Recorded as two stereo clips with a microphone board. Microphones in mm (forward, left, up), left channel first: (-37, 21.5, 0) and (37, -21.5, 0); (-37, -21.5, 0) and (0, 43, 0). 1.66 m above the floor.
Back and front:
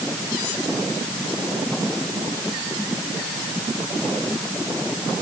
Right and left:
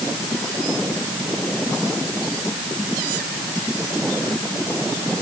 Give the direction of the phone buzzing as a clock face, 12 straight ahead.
No phone buzzing in this recording.